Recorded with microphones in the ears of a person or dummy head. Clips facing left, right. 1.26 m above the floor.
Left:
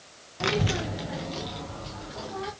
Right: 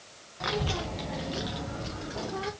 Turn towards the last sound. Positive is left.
turn(degrees=-45)  # may be behind; listen again after turning